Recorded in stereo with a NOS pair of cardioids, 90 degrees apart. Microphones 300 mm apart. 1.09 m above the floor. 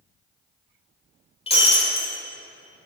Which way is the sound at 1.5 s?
20° left.